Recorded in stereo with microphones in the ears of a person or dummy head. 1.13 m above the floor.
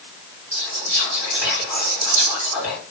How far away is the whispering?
About 2 m.